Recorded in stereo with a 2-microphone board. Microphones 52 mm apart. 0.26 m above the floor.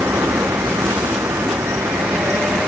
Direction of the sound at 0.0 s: 75° right (ahead or behind).